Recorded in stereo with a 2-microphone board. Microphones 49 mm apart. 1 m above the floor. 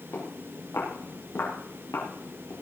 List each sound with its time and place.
0.1 s footsteps: 75° left (ahead or behind), 8 m; by 2.5 s 70° left (ahead or behind), 5.5 m